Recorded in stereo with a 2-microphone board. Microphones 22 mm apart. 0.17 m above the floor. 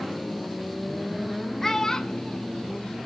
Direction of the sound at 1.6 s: 20° left (ahead or behind).